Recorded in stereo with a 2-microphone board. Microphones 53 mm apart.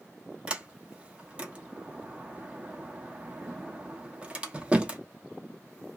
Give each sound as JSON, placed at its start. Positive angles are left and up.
{"t": 0.5, "sound": "a sliding door", "side_deg": -20, "distance_m": 0.7}